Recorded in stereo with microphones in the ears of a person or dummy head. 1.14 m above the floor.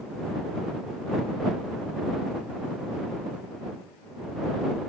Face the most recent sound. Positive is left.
No sound to turn to.